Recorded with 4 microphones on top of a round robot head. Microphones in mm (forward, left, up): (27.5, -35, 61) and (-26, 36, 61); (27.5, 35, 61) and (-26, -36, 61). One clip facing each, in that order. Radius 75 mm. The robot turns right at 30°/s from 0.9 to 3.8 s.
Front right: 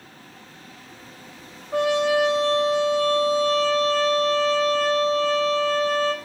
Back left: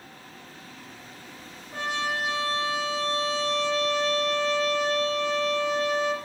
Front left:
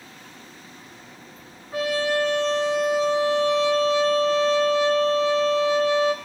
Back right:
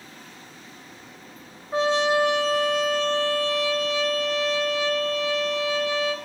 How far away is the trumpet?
About 1.3 m.